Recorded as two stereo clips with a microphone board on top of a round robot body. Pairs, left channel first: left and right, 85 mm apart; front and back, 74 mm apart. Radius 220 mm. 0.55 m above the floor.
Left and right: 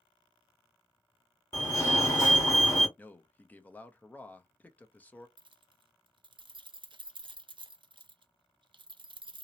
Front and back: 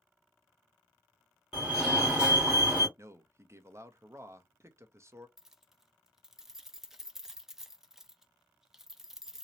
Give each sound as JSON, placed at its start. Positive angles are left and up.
{"t": 1.5, "sound": "a fire alarm", "azimuth_deg": 110, "distance_m": 1.9}
{"t": 3.0, "sound": "a man speaking", "azimuth_deg": 155, "distance_m": 0.8}
{"t": 5.4, "sound": "keys jangling", "azimuth_deg": -95, "distance_m": 0.6}